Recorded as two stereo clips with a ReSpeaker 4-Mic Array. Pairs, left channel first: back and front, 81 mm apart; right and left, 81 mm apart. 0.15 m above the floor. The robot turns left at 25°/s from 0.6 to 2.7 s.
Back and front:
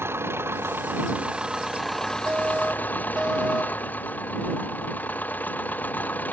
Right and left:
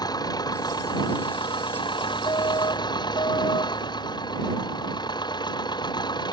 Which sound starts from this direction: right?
A fire alarm, at 2.3 s.